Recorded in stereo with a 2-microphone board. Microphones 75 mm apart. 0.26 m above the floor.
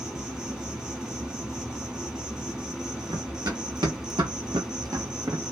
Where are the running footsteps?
60° right (ahead or behind), 1.3 m; by 5.5 s 35° right (ahead or behind), 0.6 m.